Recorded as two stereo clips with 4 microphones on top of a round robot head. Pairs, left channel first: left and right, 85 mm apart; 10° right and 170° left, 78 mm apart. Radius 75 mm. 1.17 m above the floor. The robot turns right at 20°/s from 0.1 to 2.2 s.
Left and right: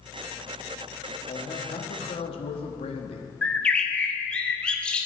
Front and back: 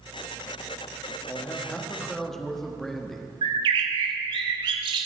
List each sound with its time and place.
1.3 s a man speaking: 55° left, 1.7 m; by 3.3 s 75° left, 1.7 m
3.4 s a bird: 165° left, 0.9 m